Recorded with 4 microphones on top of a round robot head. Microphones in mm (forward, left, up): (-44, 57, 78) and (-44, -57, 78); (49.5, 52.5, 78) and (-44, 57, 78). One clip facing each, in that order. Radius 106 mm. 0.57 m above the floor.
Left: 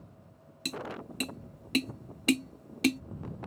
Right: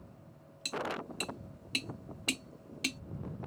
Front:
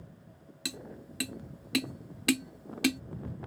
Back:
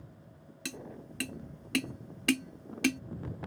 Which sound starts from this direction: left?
Tapping, at 0.7 s.